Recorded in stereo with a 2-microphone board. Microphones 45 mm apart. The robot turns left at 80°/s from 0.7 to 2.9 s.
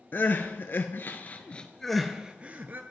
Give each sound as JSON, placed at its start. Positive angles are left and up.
{"t": 0.1, "sound": "crying", "side_deg": 55, "distance_m": 0.6}